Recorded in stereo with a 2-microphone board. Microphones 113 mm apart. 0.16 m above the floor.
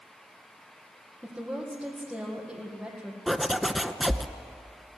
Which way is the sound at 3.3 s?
Centre (ahead or behind).